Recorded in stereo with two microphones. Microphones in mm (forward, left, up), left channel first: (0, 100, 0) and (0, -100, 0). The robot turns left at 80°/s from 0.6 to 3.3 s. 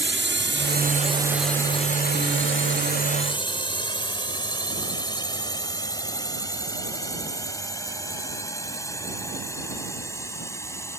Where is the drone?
65° right (ahead or behind); by 11.0 s 15° left (ahead or behind).